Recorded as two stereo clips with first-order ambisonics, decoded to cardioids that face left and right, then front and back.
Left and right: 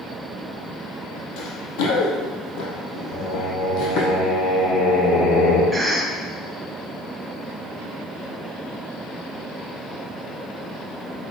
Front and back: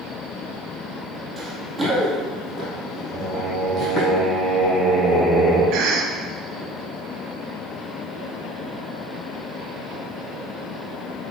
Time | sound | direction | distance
1.4 | running footsteps | 95° left | 2.5 m
3.1 | singing | 75° left | 3 m
5.7 | a cough | straight behind | 1.1 m